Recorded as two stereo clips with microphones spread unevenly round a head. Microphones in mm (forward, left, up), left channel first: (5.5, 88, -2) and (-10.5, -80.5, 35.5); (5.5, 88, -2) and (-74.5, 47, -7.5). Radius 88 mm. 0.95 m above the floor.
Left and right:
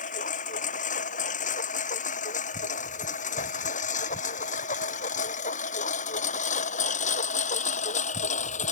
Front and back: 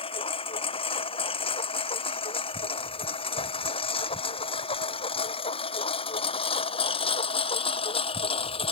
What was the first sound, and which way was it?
A lawn mower, 35° left.